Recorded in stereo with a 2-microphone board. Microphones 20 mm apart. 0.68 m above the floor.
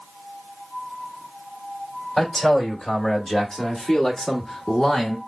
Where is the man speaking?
30° left (ahead or behind), 3 m; by 5.2 s 25° left (ahead or behind), 1.2 m.